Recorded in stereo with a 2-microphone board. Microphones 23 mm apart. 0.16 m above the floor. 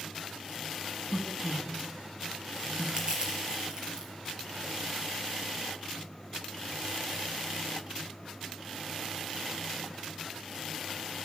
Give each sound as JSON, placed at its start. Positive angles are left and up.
{"t": 1.1, "sound": "a man speaking", "side_deg": 10, "distance_m": 1.7}
{"t": 3.0, "sound": "crushing", "side_deg": -30, "distance_m": 4.0}